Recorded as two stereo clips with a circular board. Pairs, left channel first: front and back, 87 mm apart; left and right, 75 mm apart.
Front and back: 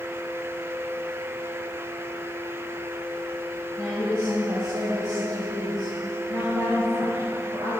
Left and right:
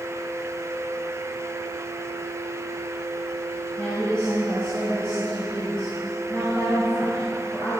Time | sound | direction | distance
3.8 | a woman speaking | 160° left | 3 m